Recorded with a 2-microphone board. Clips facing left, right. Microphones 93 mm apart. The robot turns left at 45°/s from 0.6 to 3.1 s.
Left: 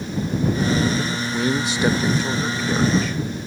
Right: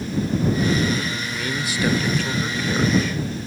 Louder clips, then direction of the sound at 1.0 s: Left 4 dB; 30° left (ahead or behind).